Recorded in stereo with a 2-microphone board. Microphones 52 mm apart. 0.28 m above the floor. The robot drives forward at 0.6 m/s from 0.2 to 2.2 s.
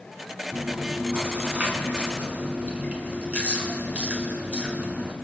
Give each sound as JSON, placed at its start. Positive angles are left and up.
{"t": 0.5, "sound": "chewing", "side_deg": -30, "distance_m": 2.5}